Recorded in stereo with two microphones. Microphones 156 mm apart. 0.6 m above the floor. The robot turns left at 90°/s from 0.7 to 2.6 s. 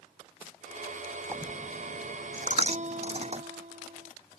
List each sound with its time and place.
1.3 s a dropped coin: 15° right (ahead or behind); by 3.4 s 45° right (ahead or behind)
2.7 s a guitar: 50° right (ahead or behind)